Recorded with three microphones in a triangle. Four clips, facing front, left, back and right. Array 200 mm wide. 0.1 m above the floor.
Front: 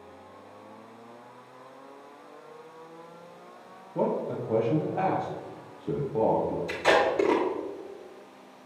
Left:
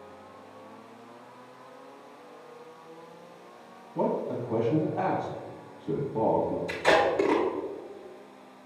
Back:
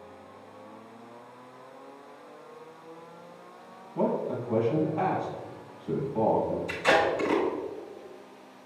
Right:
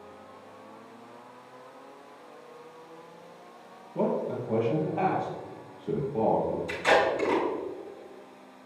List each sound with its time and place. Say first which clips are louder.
4.0 s a man speaking: even, even; 20° right, 2.5 m
6.7 s tape being pulled: even, front 1 dB; 30° left, 3 m